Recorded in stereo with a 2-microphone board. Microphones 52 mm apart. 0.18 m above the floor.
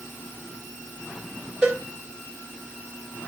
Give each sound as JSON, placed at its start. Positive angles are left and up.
{"t": 1.6, "sound": "a cowbell", "side_deg": -20, "distance_m": 6.5}